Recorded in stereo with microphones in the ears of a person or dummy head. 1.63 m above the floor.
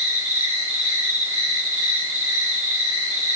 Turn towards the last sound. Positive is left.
turn(degrees=-20)  # may be behind; listen again after turning